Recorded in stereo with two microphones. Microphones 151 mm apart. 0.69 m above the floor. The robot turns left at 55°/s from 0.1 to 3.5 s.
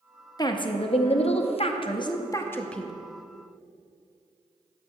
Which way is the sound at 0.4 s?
140° left.